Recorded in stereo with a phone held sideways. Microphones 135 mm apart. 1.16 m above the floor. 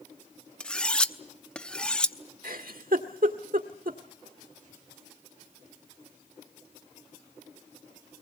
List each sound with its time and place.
0.6 s cutlery clinking: 5° left (ahead or behind), 0.8 m
2.4 s a giggle: 80° right, 1.8 m